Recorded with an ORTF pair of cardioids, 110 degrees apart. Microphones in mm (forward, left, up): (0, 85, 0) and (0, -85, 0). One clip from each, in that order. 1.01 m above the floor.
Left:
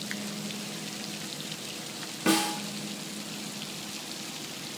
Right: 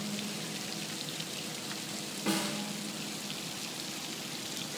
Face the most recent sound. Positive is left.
turn(degrees=45)